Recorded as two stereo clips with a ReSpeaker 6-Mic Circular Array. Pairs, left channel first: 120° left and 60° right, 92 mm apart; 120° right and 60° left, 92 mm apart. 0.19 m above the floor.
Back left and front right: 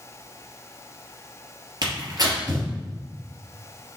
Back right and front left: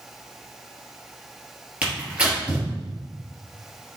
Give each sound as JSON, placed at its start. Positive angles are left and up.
{"t": 1.8, "sound": "tearing paper", "azimuth_deg": -15, "distance_m": 3.0}